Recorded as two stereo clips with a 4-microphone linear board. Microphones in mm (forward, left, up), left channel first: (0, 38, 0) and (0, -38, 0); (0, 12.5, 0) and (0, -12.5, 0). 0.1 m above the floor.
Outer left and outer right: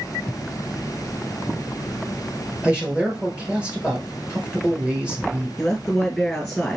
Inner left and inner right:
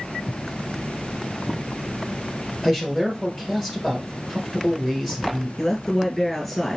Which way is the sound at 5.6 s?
Centre (ahead or behind).